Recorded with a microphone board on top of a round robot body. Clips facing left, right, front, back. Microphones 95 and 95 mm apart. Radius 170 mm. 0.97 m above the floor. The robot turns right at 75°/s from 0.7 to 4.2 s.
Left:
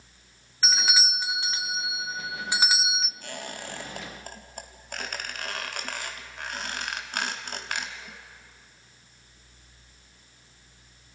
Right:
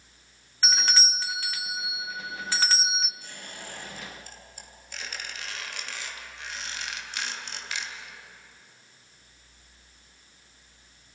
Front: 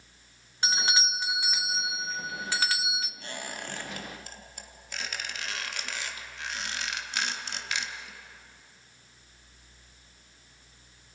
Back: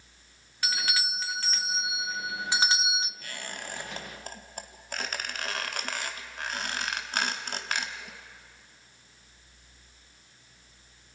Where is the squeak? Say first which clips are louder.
Left 6 dB, front 2 dB; 60° left, 1.3 m; by 8.2 s 135° left, 1.3 m.